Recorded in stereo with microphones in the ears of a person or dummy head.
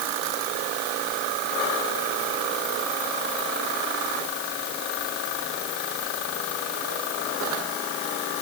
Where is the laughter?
I don't hear laughter.